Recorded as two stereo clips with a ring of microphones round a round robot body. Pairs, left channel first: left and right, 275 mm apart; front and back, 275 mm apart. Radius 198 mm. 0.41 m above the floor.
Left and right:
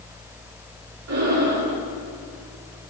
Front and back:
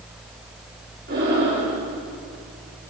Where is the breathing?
115° right, 9 m.